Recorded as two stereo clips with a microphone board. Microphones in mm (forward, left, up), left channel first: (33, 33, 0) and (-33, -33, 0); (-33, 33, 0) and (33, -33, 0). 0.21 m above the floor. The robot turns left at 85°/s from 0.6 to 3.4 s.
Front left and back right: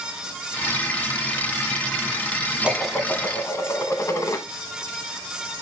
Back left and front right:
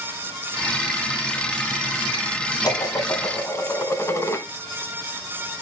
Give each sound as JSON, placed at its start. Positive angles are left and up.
{"t": 2.6, "sound": "dishes clattering", "azimuth_deg": 150, "distance_m": 1.2}